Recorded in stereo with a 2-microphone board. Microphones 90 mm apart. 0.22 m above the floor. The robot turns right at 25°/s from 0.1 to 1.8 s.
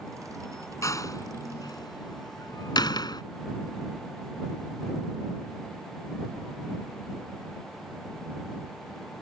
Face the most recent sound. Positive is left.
turn(degrees=55)  # may be behind; listen again after turning